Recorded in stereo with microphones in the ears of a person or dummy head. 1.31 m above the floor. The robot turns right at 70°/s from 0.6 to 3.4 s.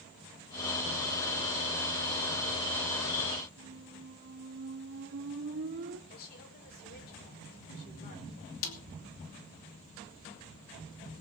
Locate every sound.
3.6 s a squeak: 55° right (ahead or behind), 1.5 m
6.1 s a woman speaking: 50° left (ahead or behind), 4.5 m
8.6 s a snare drum: 80° left, 2.5 m